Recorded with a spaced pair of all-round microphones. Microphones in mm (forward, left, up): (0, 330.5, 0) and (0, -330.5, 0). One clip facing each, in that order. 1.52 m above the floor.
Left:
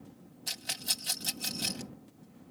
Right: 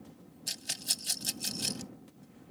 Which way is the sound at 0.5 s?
65° left (ahead or behind).